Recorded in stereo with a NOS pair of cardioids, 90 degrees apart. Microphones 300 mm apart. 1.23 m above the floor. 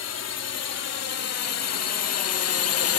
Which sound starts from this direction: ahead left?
A drone, at 0.0 s.